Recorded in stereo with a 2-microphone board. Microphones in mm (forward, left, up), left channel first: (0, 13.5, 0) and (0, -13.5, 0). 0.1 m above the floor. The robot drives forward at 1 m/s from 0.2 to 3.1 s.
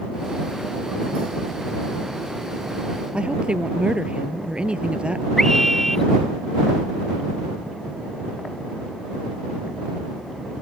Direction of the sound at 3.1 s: 45° right (ahead or behind).